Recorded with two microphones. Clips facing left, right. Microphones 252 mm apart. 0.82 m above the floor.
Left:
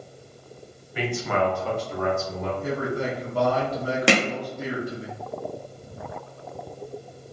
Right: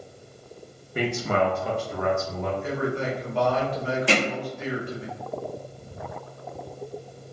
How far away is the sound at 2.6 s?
About 1.0 m.